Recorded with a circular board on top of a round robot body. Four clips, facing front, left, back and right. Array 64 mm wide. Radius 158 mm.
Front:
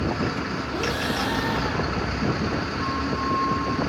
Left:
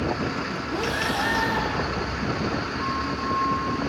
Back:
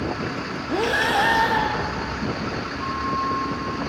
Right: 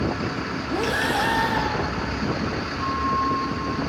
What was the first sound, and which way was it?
Breathing, 170° right.